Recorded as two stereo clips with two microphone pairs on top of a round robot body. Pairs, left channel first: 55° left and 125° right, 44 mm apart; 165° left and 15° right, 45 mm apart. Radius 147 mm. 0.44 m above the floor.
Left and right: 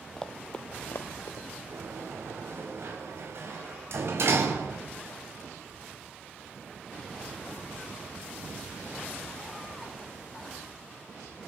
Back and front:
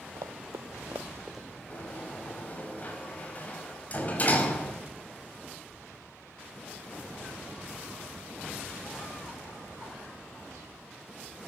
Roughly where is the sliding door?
Behind right.